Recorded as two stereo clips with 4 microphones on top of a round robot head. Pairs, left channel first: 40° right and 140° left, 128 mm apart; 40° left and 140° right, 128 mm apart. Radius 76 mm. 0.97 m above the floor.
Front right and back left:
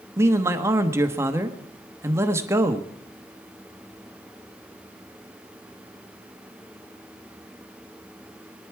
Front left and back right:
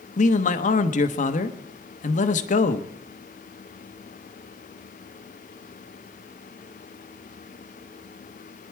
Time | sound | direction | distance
0.2 | a man speaking | 65° left | 1.2 m